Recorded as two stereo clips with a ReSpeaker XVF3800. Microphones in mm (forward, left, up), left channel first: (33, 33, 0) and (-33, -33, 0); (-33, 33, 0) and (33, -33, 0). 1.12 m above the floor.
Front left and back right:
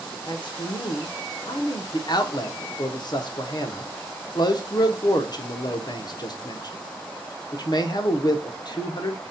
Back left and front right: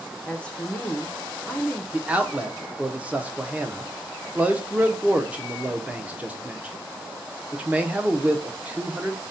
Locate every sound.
0.3 s a woman speaking: 60° left, 0.5 m
1.9 s a man speaking: 25° left, 0.6 m